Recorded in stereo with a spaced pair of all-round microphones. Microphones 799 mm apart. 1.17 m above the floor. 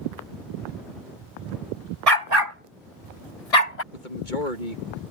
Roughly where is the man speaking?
Left.